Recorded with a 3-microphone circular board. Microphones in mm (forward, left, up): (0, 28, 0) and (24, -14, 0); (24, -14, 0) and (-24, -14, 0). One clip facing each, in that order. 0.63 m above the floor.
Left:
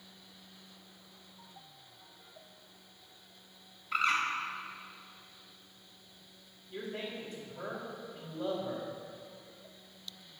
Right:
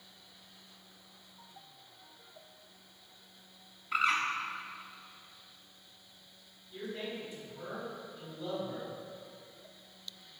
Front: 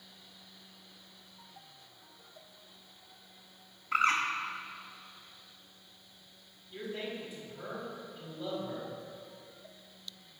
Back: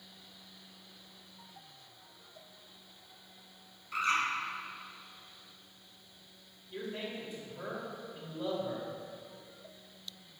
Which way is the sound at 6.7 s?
130° left.